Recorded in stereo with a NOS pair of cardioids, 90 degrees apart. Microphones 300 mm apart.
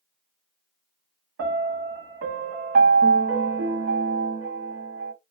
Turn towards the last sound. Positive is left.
turn(degrees=-50)